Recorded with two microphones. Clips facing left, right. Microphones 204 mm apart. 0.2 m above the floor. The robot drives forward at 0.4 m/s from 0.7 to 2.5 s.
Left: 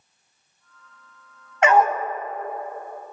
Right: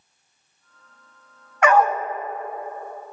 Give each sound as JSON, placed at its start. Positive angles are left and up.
{"t": 1.6, "sound": "a dog barking", "side_deg": 25, "distance_m": 0.5}